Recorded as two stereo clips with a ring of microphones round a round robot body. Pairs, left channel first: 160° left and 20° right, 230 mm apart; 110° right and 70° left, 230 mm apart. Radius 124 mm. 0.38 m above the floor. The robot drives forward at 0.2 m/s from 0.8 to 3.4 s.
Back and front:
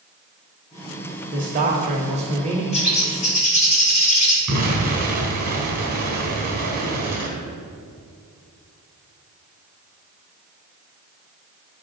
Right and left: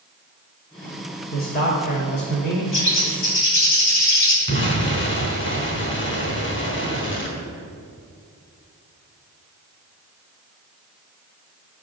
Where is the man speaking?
70° right, 1.4 m; by 2.6 s 80° right, 1.4 m.